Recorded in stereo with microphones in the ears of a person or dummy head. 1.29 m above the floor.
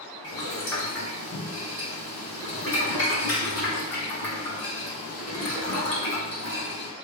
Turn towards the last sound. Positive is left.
turn(degrees=30)  # may be behind; listen again after turning